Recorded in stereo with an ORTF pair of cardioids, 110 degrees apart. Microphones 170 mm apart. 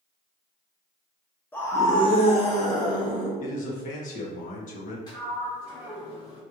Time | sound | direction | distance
1.5 | a scream | 10° left | 1.3 m
3.4 | a man speaking | 50° left | 1.2 m
5.1 | a sliding door | 25° left | 1.5 m